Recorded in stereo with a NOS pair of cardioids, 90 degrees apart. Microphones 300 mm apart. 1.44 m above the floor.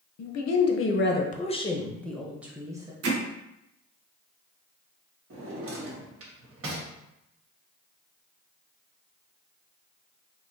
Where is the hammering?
55° right, 1.2 m.